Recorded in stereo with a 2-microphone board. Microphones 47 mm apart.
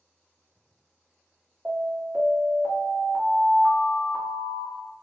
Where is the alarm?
15° right (ahead or behind), 1.3 m.